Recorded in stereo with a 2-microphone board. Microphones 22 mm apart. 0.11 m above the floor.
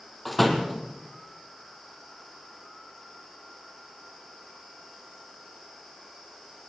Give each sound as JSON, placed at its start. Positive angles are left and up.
{"t": 0.2, "sound": "a door slam", "side_deg": 5, "distance_m": 3.5}